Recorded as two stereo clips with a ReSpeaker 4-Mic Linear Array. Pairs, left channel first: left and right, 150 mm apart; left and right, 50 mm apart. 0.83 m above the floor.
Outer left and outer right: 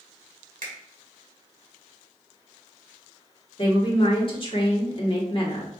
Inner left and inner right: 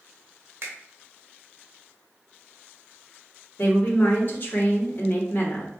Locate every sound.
0.6 s a finger snap: 60° right (ahead or behind), 1.7 m
3.6 s a woman speaking: 40° left (ahead or behind), 1.6 m